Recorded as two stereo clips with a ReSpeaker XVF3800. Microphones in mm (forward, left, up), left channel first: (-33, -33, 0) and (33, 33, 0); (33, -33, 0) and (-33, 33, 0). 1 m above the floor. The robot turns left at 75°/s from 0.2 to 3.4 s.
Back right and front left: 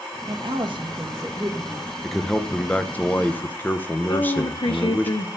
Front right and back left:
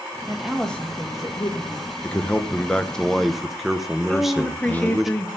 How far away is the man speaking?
About 0.8 m.